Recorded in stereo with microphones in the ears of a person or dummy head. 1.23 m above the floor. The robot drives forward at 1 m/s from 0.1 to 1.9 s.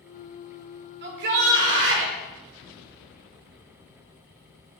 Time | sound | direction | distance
1.0 | a shout | 60° right (ahead or behind) | 5 m